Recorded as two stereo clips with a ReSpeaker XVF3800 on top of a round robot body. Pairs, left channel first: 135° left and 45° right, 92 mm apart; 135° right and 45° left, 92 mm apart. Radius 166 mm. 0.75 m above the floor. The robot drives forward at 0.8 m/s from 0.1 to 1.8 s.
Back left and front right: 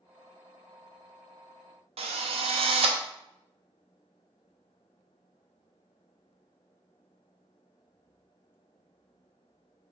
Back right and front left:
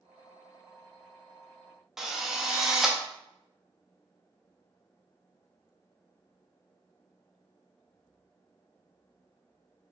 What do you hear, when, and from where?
2.0 s a drill: 40° right, 0.5 m